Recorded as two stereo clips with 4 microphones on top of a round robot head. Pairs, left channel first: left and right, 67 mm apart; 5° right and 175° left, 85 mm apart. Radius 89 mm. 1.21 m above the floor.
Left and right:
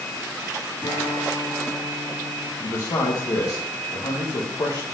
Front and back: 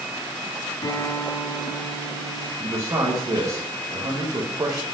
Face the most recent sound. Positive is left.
turn(degrees=120)